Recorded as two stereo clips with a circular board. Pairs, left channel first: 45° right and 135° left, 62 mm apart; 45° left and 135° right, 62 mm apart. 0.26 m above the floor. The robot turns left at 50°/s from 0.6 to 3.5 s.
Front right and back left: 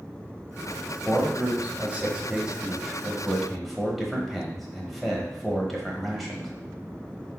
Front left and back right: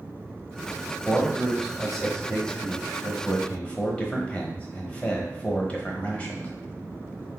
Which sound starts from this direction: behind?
A man speaking, at 1.1 s.